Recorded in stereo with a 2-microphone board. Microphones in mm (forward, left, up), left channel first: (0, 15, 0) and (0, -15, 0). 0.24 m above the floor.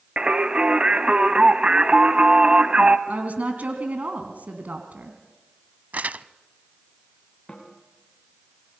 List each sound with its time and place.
0.2 s singing: 35° right (ahead or behind), 1.1 m
3.1 s a woman speaking: 55° right (ahead or behind), 2.5 m
5.9 s crumpling: 55° right (ahead or behind), 0.6 m
7.5 s a snare drum: 15° left (ahead or behind), 5 m